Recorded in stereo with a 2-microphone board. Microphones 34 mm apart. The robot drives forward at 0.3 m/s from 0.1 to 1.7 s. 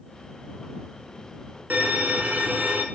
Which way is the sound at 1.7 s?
65° right (ahead or behind).